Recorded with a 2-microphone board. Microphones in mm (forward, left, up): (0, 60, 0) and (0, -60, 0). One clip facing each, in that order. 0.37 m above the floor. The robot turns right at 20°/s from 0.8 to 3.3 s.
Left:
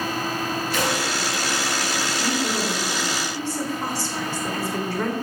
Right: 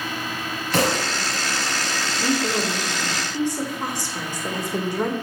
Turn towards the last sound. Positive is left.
turn(degrees=-20)  # may be behind; listen again after turning